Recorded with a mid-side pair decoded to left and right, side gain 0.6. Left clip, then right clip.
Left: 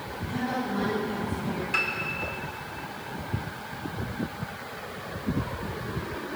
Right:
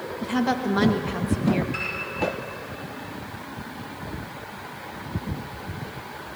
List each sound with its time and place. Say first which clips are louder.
0.2 s a woman speaking: right 6 dB; 60° right, 1.8 m
1.7 s a piano: left 3 dB; 30° left, 5 m